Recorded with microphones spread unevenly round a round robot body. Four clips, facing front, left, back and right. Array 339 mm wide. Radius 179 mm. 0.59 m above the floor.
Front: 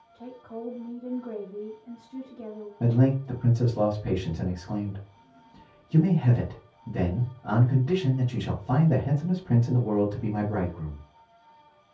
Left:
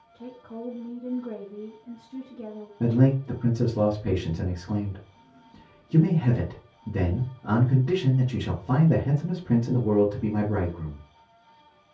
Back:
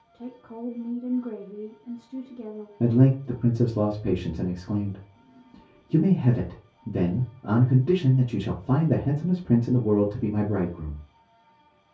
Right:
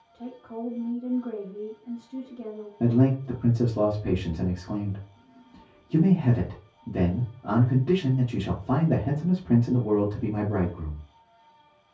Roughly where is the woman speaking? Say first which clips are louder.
Right 2 dB, back 1 dB; behind.